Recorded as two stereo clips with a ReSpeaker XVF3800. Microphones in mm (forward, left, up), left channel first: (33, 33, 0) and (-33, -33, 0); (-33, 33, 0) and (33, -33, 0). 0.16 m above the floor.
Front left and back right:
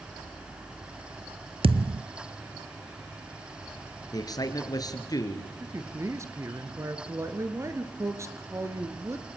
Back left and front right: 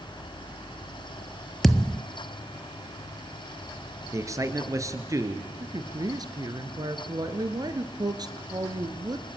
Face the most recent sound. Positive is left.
turn(degrees=-80)